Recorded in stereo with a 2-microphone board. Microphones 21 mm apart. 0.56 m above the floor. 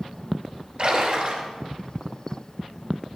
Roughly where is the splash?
Right.